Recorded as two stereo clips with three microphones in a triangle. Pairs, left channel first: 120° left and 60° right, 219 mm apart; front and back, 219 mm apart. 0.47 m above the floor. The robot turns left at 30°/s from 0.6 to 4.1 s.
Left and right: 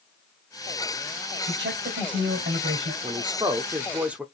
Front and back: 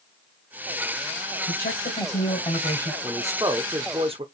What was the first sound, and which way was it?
A man speaking, 35° right.